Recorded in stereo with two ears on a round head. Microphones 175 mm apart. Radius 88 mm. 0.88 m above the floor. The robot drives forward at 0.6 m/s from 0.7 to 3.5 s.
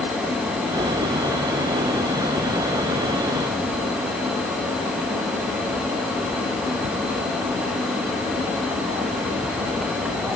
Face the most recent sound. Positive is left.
No sound to turn to.